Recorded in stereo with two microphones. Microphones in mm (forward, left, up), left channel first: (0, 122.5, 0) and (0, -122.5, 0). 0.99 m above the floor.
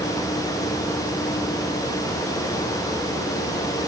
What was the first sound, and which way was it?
Only background noise.